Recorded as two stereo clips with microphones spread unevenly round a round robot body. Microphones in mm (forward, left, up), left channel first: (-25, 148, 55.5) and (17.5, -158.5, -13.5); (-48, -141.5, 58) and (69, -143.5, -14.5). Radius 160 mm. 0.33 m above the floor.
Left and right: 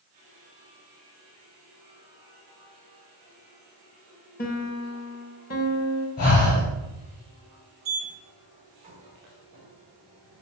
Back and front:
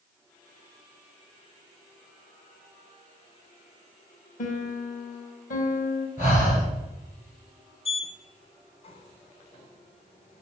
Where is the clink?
I don't hear a clink.